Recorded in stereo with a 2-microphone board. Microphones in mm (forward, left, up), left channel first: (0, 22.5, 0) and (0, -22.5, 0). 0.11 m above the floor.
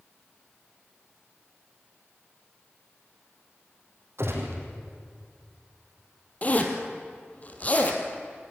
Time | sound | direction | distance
4.2 | a gunshot | 70° right (ahead or behind) | 4.5 m
6.4 | a zipper | 35° left (ahead or behind) | 2 m